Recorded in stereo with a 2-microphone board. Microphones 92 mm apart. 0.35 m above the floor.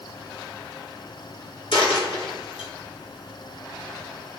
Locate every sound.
1.7 s a dropped coin: 75° left (ahead or behind), 1.5 m